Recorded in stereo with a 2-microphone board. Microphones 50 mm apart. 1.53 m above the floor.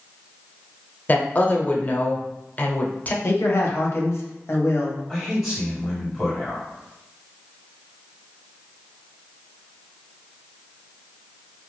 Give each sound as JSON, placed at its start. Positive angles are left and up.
{"t": 1.1, "sound": "a woman speaking", "side_deg": 35, "distance_m": 0.6}
{"t": 3.2, "sound": "a man speaking", "side_deg": 50, "distance_m": 0.8}
{"t": 5.1, "sound": "a man speaking", "side_deg": 0, "distance_m": 1.5}